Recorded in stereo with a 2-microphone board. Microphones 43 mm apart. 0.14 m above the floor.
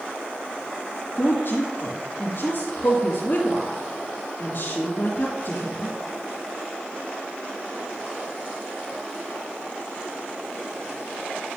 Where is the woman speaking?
55° left (ahead or behind), 3 m.